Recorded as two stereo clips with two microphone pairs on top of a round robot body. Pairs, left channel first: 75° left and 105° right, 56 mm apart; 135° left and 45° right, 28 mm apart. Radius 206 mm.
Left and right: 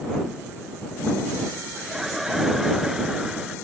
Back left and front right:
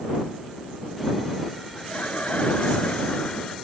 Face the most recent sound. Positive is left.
turn(degrees=175)